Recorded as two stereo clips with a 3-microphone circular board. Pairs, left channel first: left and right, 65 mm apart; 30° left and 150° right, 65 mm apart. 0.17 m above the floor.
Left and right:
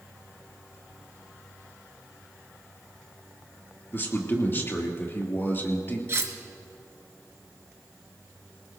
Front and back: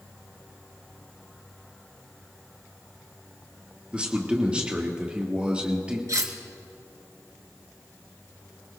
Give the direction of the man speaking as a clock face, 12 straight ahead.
7 o'clock.